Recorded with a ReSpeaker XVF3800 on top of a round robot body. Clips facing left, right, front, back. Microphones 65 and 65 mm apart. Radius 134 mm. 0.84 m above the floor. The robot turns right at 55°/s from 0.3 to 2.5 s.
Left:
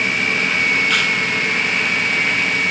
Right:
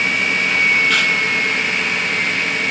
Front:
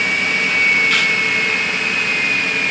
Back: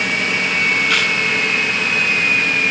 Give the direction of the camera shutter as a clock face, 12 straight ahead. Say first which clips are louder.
Right 1 dB, front 1 dB; 6 o'clock.